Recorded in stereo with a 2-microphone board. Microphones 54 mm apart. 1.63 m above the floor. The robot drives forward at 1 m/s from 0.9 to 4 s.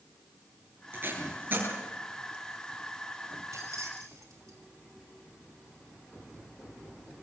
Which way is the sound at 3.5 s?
80° right.